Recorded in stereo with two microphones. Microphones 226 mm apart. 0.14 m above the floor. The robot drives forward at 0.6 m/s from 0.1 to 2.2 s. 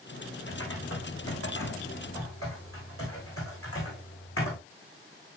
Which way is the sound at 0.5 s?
75° left (ahead or behind).